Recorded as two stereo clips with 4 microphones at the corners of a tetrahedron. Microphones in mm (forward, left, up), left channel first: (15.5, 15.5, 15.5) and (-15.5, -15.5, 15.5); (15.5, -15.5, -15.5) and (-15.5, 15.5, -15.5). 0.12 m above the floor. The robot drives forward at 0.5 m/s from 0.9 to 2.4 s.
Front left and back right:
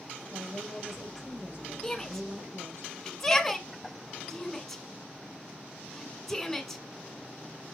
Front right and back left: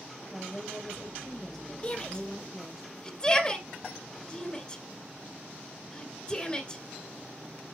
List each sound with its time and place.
0.3 s a woman speaking: 125° right, 3.5 m; by 2.8 s 135° right, 4 m
1.8 s a shout: 20° right, 1.5 m; by 6.8 s 25° right, 1.4 m